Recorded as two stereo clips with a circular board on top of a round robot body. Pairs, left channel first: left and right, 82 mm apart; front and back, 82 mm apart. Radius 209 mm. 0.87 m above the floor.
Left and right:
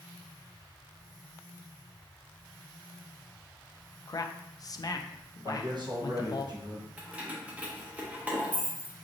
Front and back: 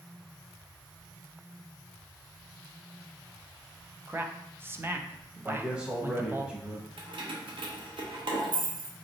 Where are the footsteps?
I don't hear footsteps.